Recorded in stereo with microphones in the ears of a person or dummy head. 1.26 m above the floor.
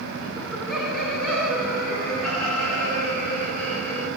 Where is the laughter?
5° right (ahead or behind), 0.5 m; by 4.1 s 5° left (ahead or behind), 3.5 m.